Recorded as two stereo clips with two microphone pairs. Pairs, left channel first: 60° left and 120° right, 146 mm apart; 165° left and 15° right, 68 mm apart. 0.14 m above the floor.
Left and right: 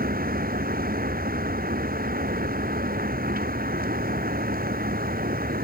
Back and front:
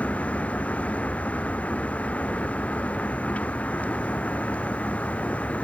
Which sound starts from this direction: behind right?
A vehicle, at 0.0 s.